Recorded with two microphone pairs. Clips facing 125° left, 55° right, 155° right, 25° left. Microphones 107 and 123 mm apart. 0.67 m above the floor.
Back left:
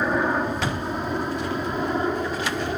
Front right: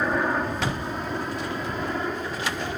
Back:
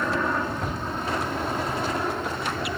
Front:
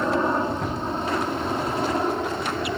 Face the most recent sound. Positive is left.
turn(degrees=75)